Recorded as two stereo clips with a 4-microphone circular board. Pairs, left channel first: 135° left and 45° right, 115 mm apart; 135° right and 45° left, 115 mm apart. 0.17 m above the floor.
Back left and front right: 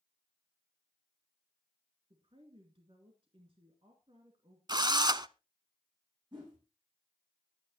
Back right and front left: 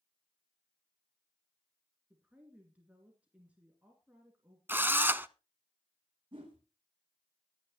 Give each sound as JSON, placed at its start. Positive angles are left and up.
{"t": 2.1, "sound": "a woman speaking", "azimuth_deg": -30, "distance_m": 2.5}
{"t": 4.7, "sound": "a drill", "azimuth_deg": -20, "distance_m": 0.6}
{"t": 6.3, "sound": "a whoosh", "azimuth_deg": 0, "distance_m": 6.0}